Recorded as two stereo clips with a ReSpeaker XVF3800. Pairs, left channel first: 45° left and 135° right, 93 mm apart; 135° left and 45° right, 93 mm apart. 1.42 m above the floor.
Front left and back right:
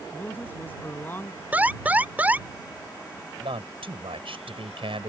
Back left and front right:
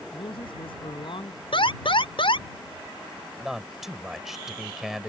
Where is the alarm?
150° left.